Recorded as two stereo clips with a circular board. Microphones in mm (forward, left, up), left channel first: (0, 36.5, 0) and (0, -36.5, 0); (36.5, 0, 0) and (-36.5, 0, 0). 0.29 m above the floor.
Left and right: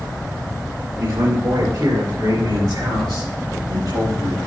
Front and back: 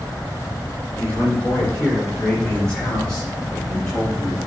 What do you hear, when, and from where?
1.0 s a man speaking: 70° right, 3 m; by 4.4 s 80° right, 7 m